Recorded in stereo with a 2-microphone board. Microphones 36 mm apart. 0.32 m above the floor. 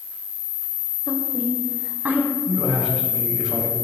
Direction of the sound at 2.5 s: 5° right (ahead or behind).